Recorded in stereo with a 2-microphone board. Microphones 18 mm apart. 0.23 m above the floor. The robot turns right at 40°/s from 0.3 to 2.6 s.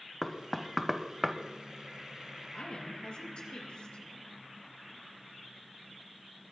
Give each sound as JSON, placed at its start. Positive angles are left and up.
{"t": 0.2, "sound": "knocking", "side_deg": 5, "distance_m": 1.0}
{"t": 2.5, "sound": "a woman speaking", "side_deg": 65, "distance_m": 4.0}